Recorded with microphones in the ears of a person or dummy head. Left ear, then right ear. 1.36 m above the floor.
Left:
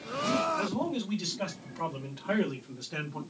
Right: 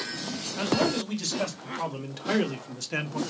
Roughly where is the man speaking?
Right.